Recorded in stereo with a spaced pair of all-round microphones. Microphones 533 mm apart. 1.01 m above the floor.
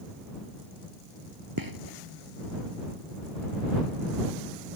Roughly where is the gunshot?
Right.